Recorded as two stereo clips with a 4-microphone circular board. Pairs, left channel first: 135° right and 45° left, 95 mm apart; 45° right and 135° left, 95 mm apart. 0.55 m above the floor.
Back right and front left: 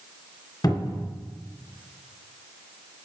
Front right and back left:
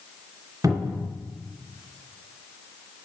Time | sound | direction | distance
0.6 | a cupboard door | 175° right | 1.8 m